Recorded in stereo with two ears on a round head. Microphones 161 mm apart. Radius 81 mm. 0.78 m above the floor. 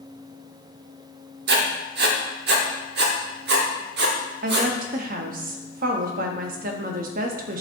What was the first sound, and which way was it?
Writing, 60° right (ahead or behind).